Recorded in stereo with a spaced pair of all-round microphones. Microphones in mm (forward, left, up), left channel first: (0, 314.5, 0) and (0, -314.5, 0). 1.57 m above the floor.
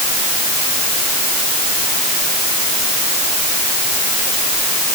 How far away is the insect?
I don't hear an insect.